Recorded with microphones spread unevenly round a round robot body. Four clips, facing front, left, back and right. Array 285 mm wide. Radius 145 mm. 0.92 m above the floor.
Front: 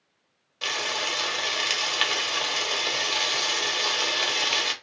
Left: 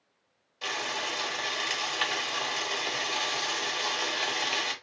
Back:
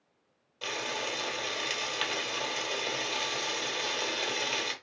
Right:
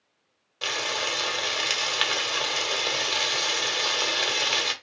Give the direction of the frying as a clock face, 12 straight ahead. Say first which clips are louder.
Right 3 dB, front 4 dB; 2 o'clock.